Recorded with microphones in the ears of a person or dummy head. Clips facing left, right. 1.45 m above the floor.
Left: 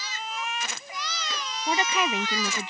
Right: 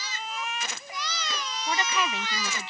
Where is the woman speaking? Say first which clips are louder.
Left 3 dB; 20° left (ahead or behind); by 2.7 s 15° left (ahead or behind).